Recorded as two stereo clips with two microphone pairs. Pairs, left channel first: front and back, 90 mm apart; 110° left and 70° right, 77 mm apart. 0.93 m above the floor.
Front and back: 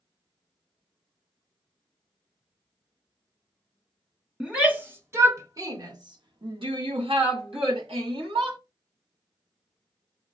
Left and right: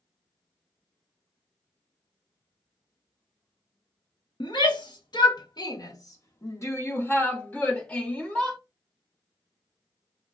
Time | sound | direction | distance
4.4 | a shout | 105° left | 1.4 m